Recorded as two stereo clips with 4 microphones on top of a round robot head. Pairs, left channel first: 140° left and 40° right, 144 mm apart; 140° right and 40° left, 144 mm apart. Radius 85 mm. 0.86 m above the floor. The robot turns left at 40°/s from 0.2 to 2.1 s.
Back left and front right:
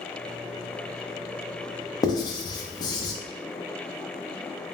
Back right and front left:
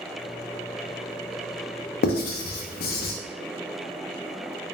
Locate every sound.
2.0 s writing: 155° right, 0.6 m; by 3.1 s 160° right, 0.6 m